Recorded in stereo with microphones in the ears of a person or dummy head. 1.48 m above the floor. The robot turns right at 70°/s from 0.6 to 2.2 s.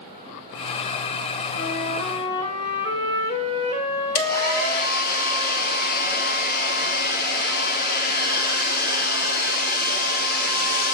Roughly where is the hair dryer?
Left.